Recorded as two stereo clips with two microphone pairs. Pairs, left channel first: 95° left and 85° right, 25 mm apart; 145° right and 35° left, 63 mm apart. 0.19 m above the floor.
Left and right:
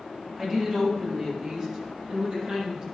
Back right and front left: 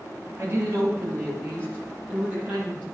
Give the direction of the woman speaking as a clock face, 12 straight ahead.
1 o'clock.